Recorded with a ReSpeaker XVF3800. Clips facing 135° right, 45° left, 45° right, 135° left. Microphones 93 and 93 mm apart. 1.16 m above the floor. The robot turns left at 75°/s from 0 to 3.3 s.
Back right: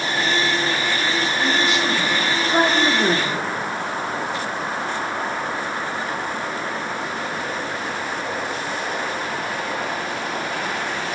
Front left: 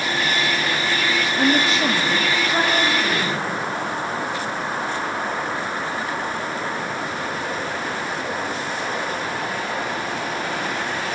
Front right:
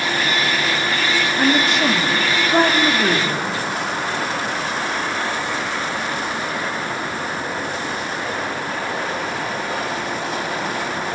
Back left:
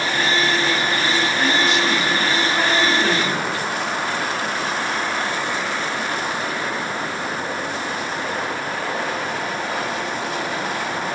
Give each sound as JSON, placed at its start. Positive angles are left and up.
{"t": 1.4, "sound": "a woman speaking", "azimuth_deg": 20, "distance_m": 2.5}